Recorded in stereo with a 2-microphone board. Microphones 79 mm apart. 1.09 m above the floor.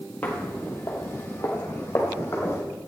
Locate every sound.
0.2 s footsteps: 20° left (ahead or behind), 1.8 m; by 2.6 s 30° left (ahead or behind), 3 m